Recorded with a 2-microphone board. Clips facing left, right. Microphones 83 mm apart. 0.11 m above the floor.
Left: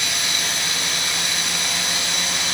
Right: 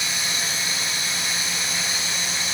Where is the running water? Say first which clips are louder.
Left 2 dB; 65° left (ahead or behind), 1.9 m.